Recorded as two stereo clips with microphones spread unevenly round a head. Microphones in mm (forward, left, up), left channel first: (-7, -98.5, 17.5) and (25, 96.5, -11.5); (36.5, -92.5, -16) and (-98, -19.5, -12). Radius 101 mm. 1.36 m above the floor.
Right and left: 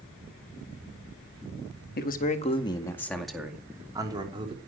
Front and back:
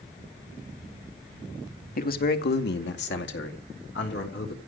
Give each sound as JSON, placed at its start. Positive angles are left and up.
{"t": 2.0, "sound": "a man speaking", "azimuth_deg": -55, "distance_m": 2.0}